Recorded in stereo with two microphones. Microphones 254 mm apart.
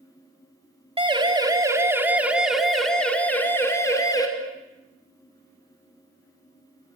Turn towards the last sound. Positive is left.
turn(degrees=15)  # may be behind; listen again after turning